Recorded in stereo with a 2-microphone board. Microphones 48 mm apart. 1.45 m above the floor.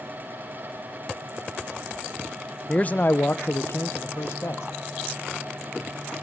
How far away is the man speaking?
About 0.6 m.